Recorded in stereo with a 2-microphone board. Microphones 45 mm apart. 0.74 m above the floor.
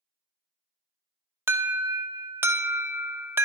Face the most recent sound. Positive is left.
turn(degrees=-65)  # may be behind; listen again after turning